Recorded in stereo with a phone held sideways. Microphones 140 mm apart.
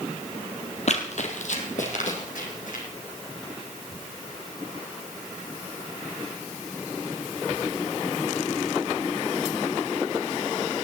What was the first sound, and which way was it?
Running footsteps, 55° left (ahead or behind).